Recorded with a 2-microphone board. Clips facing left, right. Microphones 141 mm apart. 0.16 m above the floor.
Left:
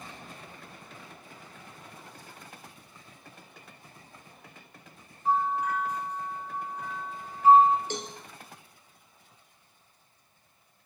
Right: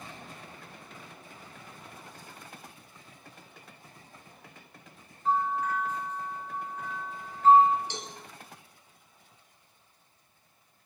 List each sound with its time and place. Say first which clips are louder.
5.2 s a bell: left 1 dB; 15° left (ahead or behind), 5.5 m
7.9 s a cowbell: left 5 dB; 50° left (ahead or behind), 1.6 m